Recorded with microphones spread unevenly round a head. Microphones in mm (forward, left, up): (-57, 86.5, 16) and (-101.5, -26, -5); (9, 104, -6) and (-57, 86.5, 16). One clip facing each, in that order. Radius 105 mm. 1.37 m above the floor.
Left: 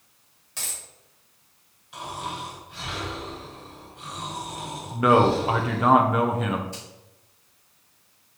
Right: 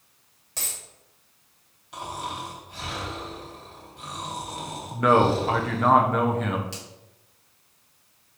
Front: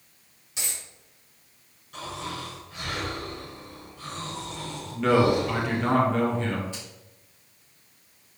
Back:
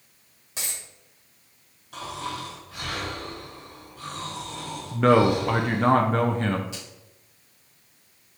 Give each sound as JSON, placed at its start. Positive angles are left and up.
{"t": 0.6, "sound": "a dropped coin", "azimuth_deg": -160, "distance_m": 1.8}
{"t": 1.9, "sound": "snoring", "azimuth_deg": -155, "distance_m": 3.0}
{"t": 4.9, "sound": "a man speaking", "azimuth_deg": 155, "distance_m": 0.9}
{"t": 6.7, "sound": "a finger snap", "azimuth_deg": -115, "distance_m": 2.5}